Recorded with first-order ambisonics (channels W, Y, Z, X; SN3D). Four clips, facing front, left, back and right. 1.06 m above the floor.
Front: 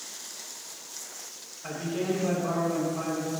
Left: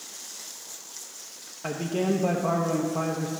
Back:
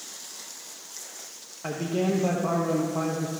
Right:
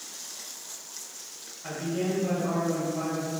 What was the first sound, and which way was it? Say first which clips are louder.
A man speaking: left 3 dB, back 3 dB; 130° left.